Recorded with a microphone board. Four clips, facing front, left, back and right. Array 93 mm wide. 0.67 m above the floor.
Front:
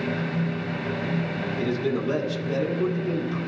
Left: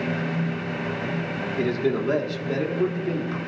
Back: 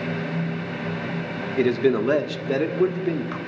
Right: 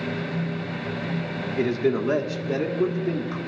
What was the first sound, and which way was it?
A man speaking, 175° right.